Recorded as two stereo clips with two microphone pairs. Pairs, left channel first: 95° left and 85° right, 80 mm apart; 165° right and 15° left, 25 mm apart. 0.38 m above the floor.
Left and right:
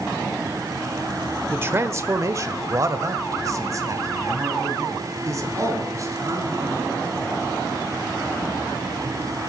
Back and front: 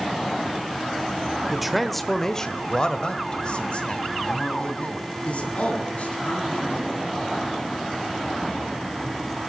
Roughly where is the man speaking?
Ahead right.